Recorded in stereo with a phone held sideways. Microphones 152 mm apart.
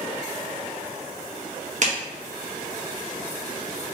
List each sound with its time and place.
1.8 s a clap: 50° right (ahead or behind), 1.2 m